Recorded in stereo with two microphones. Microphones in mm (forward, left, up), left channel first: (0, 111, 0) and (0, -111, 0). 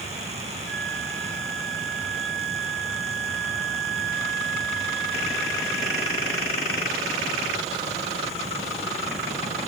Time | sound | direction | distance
0.7 | a flute | 5° left (ahead or behind) | 6 m